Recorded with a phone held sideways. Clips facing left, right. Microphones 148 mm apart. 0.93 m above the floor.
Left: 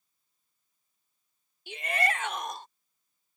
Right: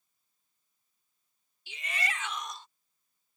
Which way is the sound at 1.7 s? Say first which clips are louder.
Left 8 dB; 55° left (ahead or behind).